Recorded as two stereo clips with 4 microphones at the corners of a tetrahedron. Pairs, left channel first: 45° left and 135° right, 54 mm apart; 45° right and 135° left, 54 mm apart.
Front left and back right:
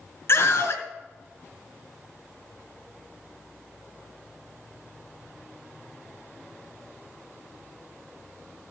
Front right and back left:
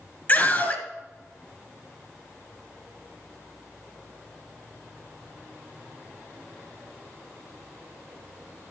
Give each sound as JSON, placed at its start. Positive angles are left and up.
{"t": 0.3, "sound": "a scream", "azimuth_deg": 10, "distance_m": 2.5}